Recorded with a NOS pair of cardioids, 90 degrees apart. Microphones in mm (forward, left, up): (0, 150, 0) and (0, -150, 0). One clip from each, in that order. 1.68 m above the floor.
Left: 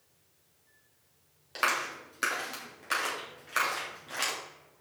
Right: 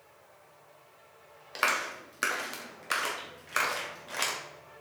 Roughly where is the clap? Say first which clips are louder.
Right 1 dB; ahead.